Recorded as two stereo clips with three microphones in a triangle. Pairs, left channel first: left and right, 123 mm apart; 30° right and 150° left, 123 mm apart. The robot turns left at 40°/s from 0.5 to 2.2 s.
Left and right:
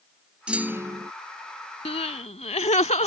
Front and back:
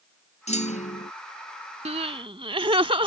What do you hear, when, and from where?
0.5 s a clunk: 10° right; by 1.1 s 35° right
1.9 s crying: 125° left; by 3.1 s 110° left